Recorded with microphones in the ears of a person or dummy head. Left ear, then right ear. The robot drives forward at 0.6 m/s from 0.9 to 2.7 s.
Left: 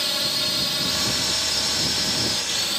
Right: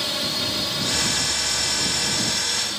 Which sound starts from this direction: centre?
A drone, at 0.0 s.